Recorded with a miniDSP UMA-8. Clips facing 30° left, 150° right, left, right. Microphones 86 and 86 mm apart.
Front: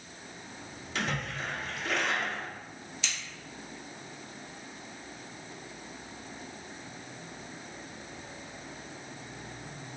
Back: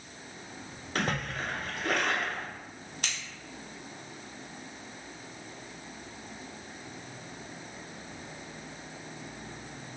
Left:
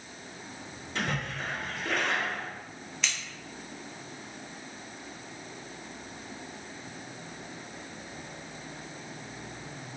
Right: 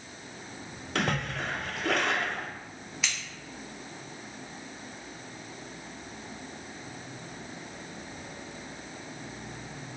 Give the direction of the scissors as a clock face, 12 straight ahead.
6 o'clock.